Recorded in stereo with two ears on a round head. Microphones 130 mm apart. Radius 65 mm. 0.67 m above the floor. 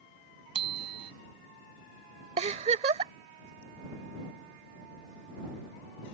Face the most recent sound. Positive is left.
turn(degrees=-45)  # may be behind; listen again after turning